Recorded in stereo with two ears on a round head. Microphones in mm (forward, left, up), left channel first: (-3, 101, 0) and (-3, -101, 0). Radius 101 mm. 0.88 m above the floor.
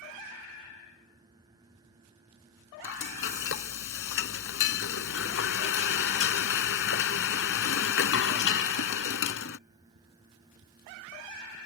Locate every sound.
2.8 s frying: 60° left (ahead or behind)